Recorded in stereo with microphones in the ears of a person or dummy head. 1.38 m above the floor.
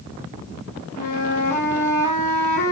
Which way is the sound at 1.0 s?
60° left (ahead or behind).